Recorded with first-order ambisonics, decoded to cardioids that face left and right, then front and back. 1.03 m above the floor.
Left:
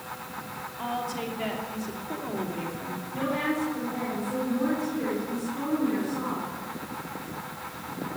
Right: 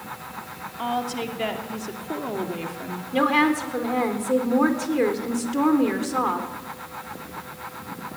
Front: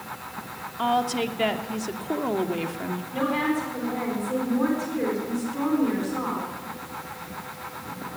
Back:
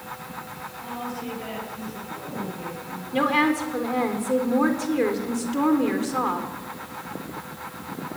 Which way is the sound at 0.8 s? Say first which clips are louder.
Right 5 dB, front 11 dB; 25° right.